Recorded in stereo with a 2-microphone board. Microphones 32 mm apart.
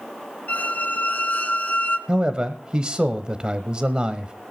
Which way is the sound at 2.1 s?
30° right (ahead or behind).